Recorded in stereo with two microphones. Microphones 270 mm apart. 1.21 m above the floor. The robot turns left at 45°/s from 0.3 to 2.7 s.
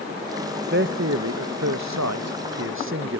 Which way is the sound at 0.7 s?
40° right (ahead or behind).